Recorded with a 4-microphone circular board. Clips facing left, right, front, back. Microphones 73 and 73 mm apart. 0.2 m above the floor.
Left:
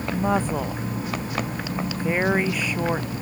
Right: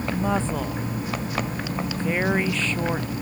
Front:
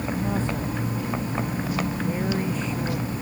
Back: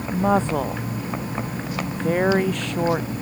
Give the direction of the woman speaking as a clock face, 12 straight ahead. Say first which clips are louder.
Left 3 dB, back 11 dB; 6 o'clock.